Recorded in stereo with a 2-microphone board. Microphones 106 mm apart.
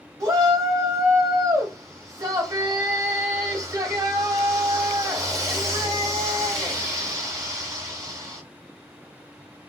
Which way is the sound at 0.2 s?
35° right (ahead or behind).